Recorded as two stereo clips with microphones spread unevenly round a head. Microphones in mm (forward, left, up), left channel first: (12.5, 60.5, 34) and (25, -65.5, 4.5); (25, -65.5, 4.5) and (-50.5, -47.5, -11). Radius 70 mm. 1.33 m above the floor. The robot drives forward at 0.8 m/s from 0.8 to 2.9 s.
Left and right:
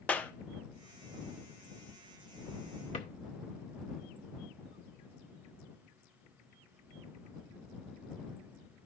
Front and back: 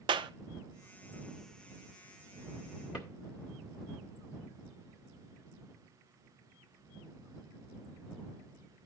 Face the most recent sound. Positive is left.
turn(degrees=80)